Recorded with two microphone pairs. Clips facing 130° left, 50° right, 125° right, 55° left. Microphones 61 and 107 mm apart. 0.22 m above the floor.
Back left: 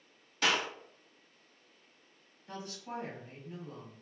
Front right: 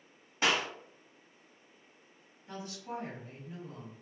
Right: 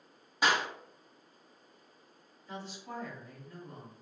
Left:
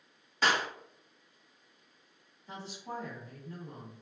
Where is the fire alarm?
No fire alarm in this recording.